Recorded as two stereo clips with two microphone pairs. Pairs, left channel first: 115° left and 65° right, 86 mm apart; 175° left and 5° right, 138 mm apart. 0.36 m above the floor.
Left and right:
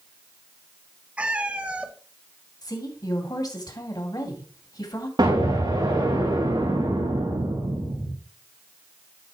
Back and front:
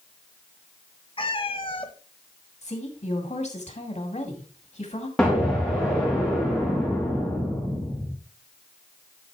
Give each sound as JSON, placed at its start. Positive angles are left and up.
{"t": 1.2, "sound": "a cat meowing", "azimuth_deg": -140, "distance_m": 0.9}
{"t": 2.6, "sound": "a woman speaking", "azimuth_deg": 150, "distance_m": 2.0}
{"t": 5.2, "sound": "an explosion", "azimuth_deg": -95, "distance_m": 5.5}